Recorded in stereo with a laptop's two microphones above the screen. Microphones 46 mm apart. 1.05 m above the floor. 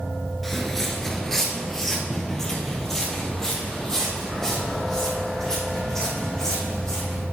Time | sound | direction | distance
0.4 | footsteps | 5° left (ahead or behind) | 1.0 m